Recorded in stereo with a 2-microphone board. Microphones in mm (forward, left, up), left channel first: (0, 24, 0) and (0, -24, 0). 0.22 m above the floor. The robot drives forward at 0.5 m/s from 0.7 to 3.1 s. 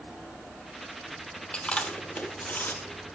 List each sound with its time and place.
1.5 s chewing: 25° left (ahead or behind), 1.2 m; by 2.8 s 50° left (ahead or behind), 0.7 m